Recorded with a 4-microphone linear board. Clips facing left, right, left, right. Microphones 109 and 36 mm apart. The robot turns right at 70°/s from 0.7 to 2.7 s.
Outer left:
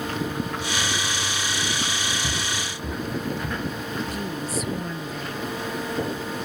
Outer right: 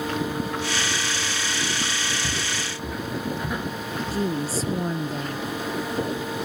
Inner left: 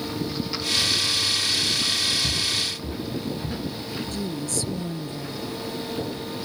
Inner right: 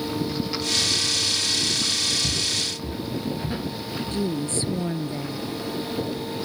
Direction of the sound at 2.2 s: Centre (ahead or behind).